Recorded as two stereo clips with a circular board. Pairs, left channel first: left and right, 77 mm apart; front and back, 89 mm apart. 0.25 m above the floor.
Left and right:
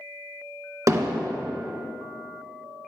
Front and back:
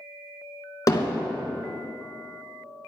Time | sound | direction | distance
0.9 | hammering | 45° right | 1.1 m